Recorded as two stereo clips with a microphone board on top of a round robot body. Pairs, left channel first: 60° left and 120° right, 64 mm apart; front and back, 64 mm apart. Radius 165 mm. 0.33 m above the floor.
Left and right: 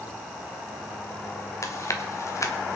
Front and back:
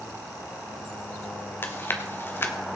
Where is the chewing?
45° left, 1.8 m.